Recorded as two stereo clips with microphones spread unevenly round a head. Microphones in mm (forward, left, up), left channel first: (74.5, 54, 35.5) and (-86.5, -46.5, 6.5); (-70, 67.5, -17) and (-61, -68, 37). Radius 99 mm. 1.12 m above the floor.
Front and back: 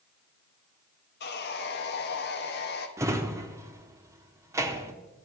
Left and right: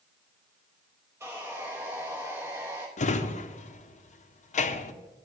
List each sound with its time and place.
1.2 s sawing: 5° right, 1.0 m
3.0 s a drawer: 130° left, 0.8 m